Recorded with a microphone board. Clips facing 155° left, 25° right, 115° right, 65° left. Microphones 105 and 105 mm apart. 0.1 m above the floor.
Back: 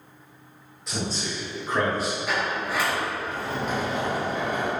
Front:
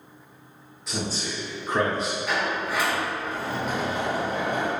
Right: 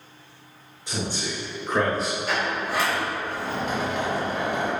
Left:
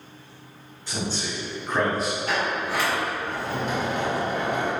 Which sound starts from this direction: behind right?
A man speaking, at 0.9 s.